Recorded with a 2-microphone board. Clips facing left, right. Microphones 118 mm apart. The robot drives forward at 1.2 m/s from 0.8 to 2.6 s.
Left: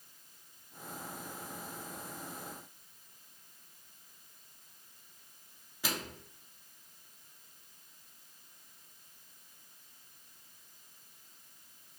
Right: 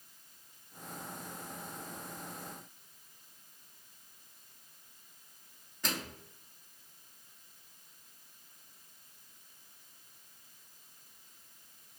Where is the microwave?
10° left (ahead or behind), 0.7 m.